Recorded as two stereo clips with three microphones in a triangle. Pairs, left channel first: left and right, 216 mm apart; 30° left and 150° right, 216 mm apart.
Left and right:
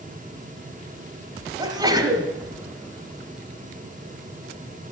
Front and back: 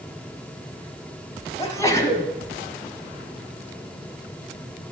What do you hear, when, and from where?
1.6 s a sneeze: 35° right, 1.3 m